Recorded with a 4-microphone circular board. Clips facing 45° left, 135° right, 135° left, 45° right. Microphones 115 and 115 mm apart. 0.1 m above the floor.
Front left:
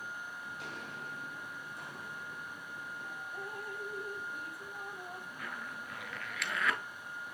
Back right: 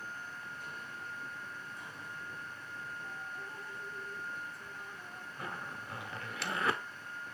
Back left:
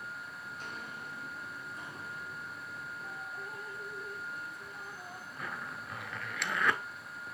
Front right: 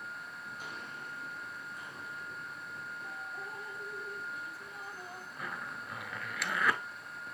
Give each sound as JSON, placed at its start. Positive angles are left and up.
{"t": 0.5, "sound": "footsteps", "azimuth_deg": 25, "distance_m": 0.9}
{"t": 3.3, "sound": "dripping", "azimuth_deg": 35, "distance_m": 0.8}
{"t": 5.4, "sound": "a zipper", "azimuth_deg": -130, "distance_m": 0.6}